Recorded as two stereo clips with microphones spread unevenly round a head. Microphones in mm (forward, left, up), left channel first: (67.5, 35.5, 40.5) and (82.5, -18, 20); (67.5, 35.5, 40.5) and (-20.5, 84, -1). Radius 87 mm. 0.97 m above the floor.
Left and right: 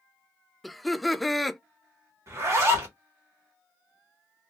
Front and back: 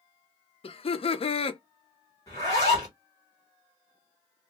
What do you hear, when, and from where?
0.6 s laughter: 10° left, 0.6 m
2.3 s a zipper: 105° right, 0.9 m